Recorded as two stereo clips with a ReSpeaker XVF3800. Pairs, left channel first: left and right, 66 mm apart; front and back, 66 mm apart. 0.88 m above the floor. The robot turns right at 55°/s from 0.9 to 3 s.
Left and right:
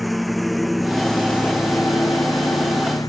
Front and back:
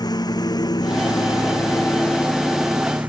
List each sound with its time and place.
0.0 s a lawn mower: straight ahead; by 3.1 s 115° left